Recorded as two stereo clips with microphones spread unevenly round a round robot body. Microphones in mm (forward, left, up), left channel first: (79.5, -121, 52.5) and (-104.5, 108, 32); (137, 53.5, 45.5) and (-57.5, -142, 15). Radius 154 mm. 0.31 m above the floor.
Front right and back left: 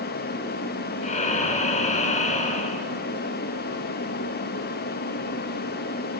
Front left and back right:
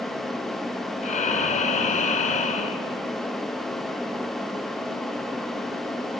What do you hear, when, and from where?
1.0 s breathing: 5° right, 0.9 m